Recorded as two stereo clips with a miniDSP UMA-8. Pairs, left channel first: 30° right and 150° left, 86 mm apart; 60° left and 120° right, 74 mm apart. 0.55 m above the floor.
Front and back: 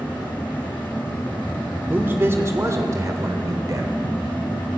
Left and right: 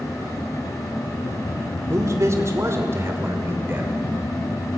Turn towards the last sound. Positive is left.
turn(degrees=-175)